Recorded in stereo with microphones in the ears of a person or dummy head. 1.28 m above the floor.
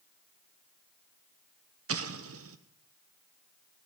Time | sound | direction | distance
1.9 | an explosion | 70° right (ahead or behind) | 0.9 m